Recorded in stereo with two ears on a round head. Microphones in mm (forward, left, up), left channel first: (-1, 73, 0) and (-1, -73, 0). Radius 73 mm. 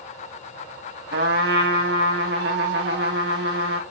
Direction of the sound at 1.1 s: 75° right (ahead or behind).